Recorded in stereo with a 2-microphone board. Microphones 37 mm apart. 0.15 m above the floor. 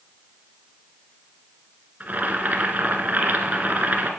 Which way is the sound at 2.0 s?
45° right (ahead or behind).